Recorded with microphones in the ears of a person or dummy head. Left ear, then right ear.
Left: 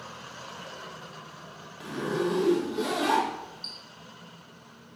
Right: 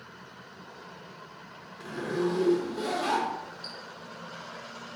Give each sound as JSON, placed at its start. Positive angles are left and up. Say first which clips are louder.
{"t": 1.8, "sound": "a zipper", "louder": "left 1 dB", "side_deg": 10, "distance_m": 0.9}